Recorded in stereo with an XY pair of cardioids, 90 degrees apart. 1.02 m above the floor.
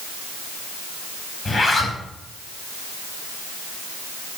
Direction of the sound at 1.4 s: 35° left.